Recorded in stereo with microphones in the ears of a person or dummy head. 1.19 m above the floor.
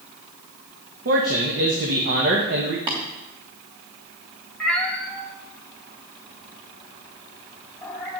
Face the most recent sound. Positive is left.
turn(degrees=0)  # may be behind; listen again after turning